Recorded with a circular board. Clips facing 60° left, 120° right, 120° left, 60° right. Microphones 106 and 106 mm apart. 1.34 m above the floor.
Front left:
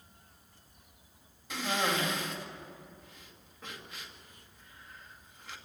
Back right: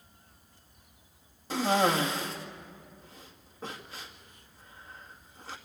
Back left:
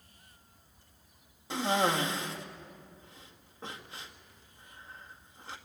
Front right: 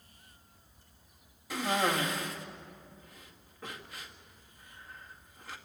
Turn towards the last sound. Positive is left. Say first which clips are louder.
# back right 7 dB, back left 2 dB
turn(degrees=-175)